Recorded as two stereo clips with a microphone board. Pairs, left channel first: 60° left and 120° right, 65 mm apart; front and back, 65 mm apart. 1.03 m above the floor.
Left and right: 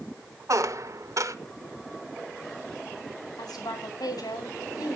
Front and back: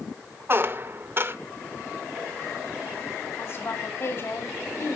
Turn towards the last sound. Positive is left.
turn(degrees=50)